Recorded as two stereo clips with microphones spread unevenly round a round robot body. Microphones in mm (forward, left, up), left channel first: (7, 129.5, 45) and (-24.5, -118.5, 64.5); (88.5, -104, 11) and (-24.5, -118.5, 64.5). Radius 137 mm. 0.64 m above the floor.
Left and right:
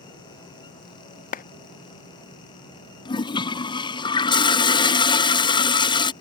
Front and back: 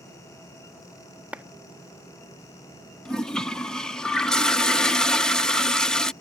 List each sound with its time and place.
1.3 s a clap: 75° left
3.0 s a toilet flushing: 35° left